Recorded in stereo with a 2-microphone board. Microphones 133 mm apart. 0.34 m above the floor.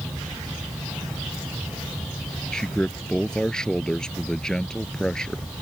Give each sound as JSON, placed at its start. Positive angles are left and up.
{"t": 2.5, "sound": "a man speaking", "side_deg": 5}